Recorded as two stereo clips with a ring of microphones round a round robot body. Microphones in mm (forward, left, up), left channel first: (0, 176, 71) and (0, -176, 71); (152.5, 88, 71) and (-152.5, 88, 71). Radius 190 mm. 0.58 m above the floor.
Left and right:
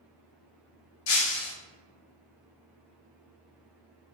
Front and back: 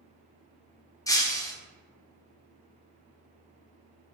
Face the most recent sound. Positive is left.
turn(degrees=80)